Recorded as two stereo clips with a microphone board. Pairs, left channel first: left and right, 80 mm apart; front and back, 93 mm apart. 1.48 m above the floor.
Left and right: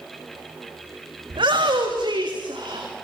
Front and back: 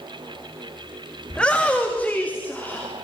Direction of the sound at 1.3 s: 80° right.